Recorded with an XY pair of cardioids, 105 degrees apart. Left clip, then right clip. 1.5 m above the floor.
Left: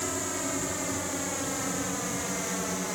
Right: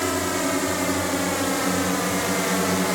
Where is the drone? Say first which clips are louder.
Right 8 dB; 60° right; by 2.9 s 70° right.